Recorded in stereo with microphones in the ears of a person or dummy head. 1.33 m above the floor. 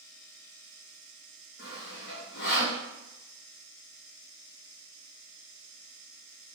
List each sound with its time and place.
1.6 s sawing: 55° left (ahead or behind), 0.9 m